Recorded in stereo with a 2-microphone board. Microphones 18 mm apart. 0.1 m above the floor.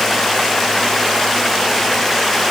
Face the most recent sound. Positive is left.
No sound to turn to.